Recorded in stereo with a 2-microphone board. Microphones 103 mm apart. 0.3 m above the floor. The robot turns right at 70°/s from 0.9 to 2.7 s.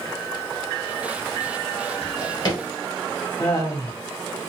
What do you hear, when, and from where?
2.0 s a drawer: 70° left (ahead or behind), 1.6 m; by 2.6 s 30° left (ahead or behind), 1.6 m
3.4 s laughter: 40° left (ahead or behind), 1.2 m